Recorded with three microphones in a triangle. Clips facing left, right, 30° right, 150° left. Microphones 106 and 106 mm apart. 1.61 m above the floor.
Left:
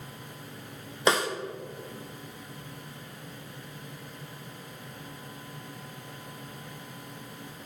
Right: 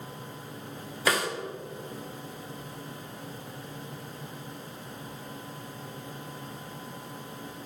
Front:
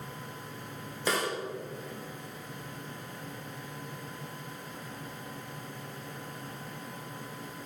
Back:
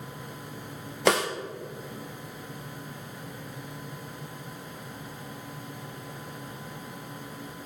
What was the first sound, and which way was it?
A snare drum, 155° left.